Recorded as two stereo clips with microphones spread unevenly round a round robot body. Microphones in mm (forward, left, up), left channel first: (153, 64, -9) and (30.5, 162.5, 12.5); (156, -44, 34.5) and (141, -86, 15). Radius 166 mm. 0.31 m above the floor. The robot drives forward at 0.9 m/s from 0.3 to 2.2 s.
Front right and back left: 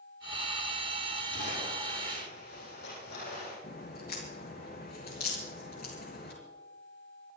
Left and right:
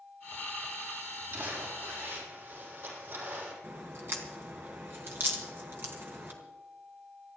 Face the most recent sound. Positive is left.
turn(degrees=-100)